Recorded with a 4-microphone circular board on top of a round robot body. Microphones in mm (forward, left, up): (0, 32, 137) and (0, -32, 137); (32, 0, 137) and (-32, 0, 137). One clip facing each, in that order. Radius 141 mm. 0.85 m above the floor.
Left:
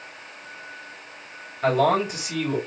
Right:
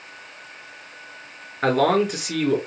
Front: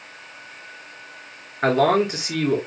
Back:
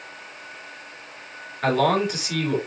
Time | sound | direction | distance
1.6 | a man speaking | 55° right | 3 m